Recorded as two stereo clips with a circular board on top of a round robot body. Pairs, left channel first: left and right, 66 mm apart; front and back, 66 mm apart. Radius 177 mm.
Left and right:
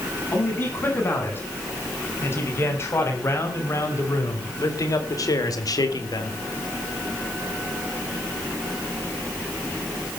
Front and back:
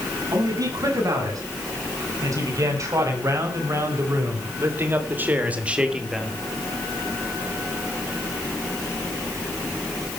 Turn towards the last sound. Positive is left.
turn(degrees=90)